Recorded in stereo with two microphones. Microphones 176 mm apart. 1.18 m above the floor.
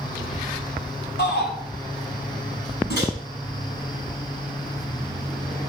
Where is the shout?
75° left (ahead or behind), 5 m.